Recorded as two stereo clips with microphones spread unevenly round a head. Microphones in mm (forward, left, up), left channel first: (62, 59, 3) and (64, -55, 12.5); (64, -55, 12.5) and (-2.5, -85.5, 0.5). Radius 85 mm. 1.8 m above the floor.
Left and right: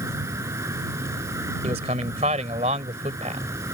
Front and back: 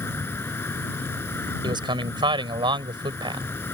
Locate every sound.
0.0 s an insect: 25° right
1.6 s a man speaking: 145° right